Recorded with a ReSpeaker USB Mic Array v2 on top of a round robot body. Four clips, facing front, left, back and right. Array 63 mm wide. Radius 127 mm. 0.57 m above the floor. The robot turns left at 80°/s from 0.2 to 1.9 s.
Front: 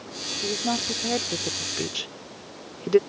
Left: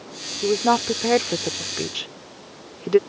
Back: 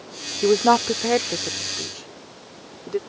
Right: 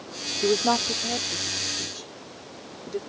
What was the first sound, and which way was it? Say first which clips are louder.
A woman speaking: left 4 dB, back 12 dB; straight behind.